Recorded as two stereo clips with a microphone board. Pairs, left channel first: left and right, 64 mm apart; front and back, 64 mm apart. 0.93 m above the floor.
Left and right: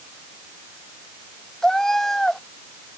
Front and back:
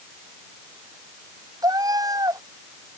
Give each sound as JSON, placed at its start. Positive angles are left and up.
{"t": 1.6, "sound": "a cat meowing", "azimuth_deg": 175}